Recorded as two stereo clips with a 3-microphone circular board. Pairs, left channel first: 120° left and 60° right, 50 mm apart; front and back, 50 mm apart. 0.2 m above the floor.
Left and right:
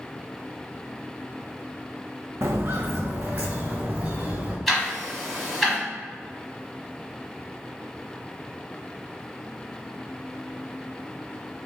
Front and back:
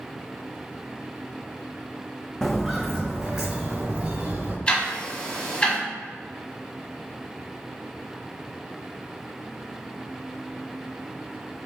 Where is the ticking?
30° left, 1.4 m.